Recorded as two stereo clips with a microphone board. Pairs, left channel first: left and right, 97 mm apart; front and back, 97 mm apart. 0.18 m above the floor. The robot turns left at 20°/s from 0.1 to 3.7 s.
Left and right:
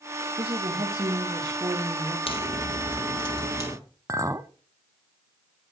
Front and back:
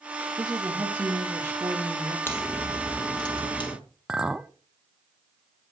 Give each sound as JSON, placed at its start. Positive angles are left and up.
{"t": 0.4, "sound": "a woman speaking", "azimuth_deg": -105, "distance_m": 4.0}
{"t": 2.3, "sound": "a crack", "azimuth_deg": 65, "distance_m": 4.0}
{"t": 4.1, "sound": "a clink", "azimuth_deg": -105, "distance_m": 0.7}